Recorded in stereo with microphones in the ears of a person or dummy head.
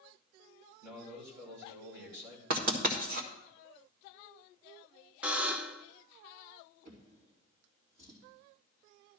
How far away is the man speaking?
About 4 m.